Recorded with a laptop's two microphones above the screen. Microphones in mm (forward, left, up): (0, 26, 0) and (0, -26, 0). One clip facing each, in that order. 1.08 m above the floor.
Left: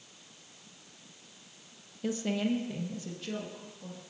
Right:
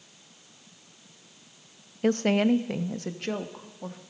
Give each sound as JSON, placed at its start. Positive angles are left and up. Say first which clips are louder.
{"t": 2.0, "sound": "a woman speaking", "louder": "right 9 dB", "side_deg": -60, "distance_m": 0.5}